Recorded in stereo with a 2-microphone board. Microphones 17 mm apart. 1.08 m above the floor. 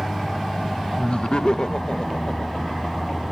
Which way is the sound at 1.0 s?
55° left (ahead or behind).